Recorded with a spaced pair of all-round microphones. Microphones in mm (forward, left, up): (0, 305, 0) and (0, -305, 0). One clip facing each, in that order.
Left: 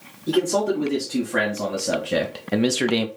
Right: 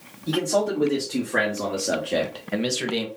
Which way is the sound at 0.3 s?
5° right (ahead or behind).